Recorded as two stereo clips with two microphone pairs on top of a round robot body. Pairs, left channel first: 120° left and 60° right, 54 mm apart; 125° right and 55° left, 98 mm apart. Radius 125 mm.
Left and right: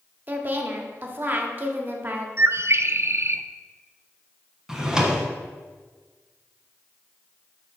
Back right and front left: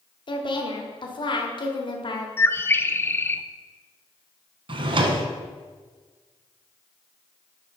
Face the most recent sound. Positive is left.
turn(degrees=20)